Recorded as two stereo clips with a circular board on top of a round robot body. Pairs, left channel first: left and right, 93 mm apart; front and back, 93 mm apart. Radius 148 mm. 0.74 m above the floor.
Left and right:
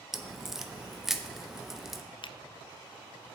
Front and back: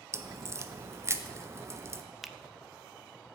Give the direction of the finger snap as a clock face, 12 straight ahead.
9 o'clock.